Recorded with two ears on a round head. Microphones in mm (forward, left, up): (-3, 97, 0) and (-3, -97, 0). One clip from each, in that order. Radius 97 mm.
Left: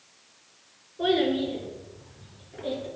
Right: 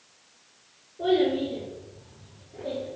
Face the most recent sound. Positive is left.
turn(degrees=65)  # may be behind; listen again after turning